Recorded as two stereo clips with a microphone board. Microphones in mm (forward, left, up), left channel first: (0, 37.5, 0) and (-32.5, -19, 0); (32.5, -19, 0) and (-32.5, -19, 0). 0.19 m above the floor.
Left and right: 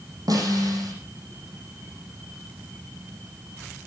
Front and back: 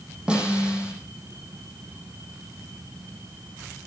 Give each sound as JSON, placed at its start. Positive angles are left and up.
{"t": 0.3, "sound": "a snare drum", "azimuth_deg": -105, "distance_m": 9.5}